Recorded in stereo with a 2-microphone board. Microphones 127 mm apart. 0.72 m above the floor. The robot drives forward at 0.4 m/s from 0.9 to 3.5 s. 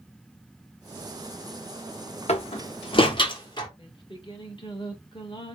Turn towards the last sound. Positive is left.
turn(degrees=40)  # may be behind; listen again after turning